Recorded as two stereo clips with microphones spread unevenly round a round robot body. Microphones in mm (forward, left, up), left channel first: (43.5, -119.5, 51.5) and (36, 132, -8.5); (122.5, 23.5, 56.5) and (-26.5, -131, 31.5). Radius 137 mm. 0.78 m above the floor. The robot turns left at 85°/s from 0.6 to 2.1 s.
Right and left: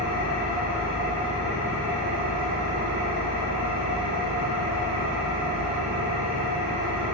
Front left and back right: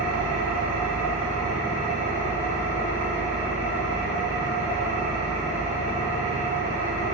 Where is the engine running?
120° right, 0.8 m; by 7.2 s 110° left, 0.8 m.